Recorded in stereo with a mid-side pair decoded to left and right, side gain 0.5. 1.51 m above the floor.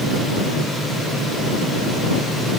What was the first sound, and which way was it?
Only background noise.